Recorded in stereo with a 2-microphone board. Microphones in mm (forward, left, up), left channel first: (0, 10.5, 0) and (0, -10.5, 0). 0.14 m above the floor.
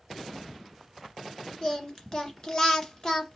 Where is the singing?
30° left (ahead or behind), 1.8 m.